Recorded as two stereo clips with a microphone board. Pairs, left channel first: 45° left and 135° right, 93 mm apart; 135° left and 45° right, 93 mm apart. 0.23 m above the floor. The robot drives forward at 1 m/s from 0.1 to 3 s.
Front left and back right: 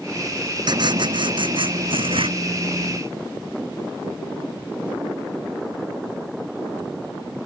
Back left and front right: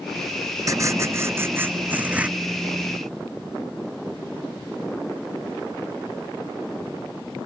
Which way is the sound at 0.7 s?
100° right.